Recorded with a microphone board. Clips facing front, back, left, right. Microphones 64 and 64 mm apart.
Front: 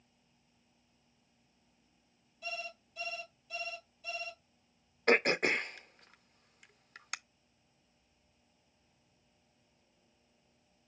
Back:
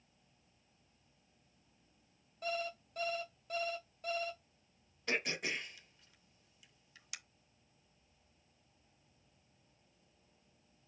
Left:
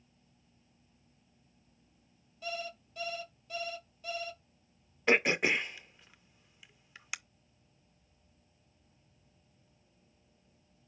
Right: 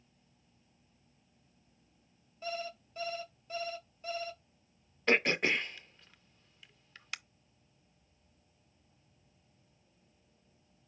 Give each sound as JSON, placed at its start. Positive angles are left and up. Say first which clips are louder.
{"t": 2.4, "sound": "an alarm clock", "louder": "back 4 dB, right 1 dB", "azimuth_deg": -145, "distance_m": 1.7}
{"t": 5.1, "sound": "throat clearing", "louder": "front 10 dB, left 1 dB", "azimuth_deg": 10, "distance_m": 0.5}